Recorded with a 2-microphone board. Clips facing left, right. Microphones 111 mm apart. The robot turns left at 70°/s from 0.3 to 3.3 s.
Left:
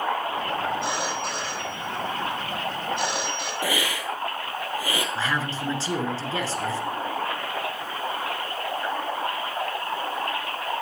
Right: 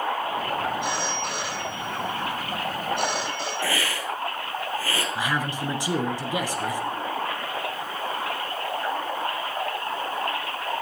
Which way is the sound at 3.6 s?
15° left (ahead or behind).